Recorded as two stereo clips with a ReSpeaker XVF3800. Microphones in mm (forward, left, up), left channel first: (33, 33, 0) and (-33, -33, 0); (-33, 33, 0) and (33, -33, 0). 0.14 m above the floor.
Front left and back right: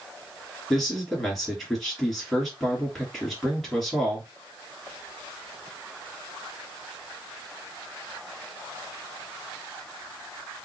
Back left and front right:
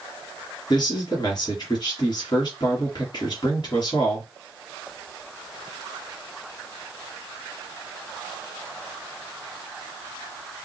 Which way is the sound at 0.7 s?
130° left.